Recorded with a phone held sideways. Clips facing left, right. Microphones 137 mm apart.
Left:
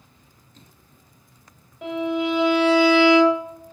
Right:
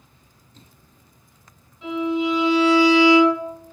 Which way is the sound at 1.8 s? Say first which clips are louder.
Right 1 dB; 65° left (ahead or behind).